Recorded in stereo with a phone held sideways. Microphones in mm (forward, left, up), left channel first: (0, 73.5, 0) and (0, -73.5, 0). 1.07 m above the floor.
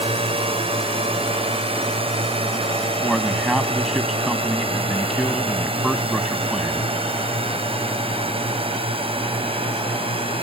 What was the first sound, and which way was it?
A drone, 40° right (ahead or behind).